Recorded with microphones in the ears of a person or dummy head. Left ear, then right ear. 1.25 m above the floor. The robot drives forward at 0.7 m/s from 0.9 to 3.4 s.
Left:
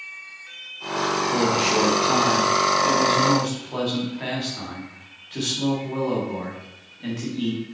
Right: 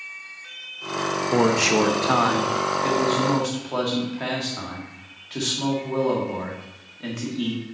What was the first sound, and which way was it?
A man speaking, 45° right (ahead or behind).